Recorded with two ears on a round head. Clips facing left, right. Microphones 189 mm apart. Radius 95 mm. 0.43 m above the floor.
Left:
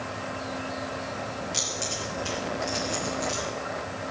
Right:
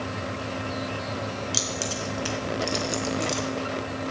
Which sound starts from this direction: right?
Keys jangling, at 1.5 s.